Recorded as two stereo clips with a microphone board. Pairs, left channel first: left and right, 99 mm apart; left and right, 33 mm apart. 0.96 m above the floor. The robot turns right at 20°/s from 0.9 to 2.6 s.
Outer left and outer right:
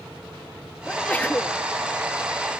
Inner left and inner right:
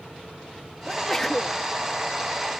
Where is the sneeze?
10° left (ahead or behind); by 1.6 s 20° left (ahead or behind).